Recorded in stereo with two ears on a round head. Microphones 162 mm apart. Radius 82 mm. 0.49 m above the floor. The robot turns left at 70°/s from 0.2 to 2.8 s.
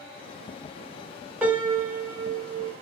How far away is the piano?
About 1.1 m.